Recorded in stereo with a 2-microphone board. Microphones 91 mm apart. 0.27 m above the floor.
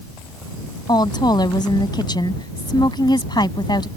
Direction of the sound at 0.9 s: 55° left (ahead or behind).